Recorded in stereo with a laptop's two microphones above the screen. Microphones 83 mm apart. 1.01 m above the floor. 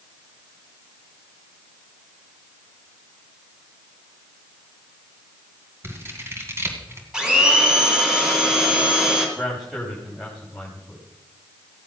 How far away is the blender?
About 2.5 m.